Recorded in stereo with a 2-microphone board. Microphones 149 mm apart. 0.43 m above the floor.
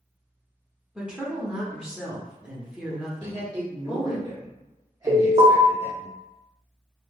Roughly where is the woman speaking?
Centre.